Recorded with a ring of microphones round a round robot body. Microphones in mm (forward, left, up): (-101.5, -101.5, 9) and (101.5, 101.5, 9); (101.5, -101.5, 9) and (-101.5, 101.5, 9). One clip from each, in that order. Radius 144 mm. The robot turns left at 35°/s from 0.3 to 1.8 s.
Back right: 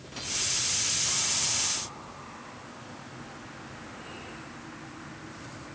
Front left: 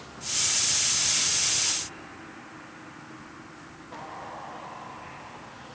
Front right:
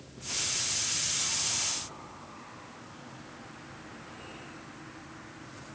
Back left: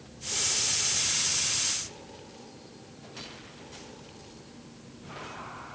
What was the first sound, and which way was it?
Only background noise.